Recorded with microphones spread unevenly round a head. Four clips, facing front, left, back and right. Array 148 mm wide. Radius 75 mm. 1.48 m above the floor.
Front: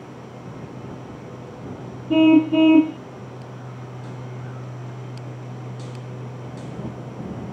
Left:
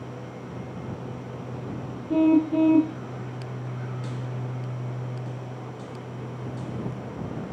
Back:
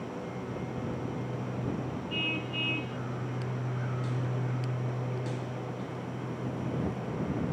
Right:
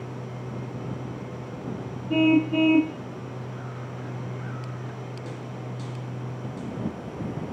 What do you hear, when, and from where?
2.1 s a car horn: 10° left